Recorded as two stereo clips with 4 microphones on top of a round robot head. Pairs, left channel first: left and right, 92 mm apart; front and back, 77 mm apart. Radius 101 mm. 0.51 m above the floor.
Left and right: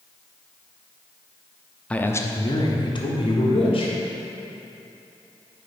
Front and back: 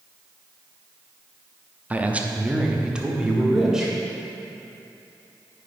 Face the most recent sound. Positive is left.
turn(degrees=95)